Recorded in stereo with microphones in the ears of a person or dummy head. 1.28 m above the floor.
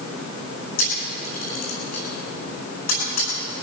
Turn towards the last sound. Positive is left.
turn(degrees=50)  # may be behind; listen again after turning